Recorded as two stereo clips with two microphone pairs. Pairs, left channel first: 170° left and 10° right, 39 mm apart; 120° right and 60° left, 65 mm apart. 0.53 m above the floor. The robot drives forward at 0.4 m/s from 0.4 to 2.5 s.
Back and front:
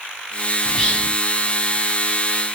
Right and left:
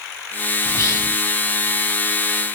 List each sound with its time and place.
0.7 s whispering: 120° right, 1.1 m; by 1.1 s 130° right, 1.2 m